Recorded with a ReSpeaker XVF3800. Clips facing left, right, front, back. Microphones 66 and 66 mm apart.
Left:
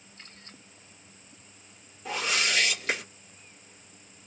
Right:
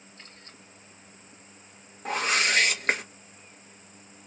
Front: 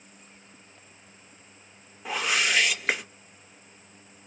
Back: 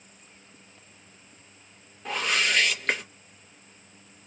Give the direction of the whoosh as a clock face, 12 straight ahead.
3 o'clock.